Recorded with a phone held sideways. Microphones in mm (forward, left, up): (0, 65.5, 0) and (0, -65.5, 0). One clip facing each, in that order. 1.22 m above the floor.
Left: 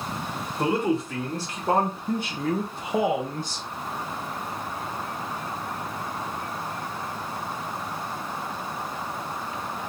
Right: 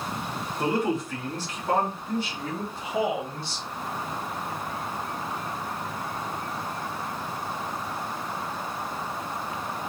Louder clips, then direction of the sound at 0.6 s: Left 2 dB; 25° left (ahead or behind).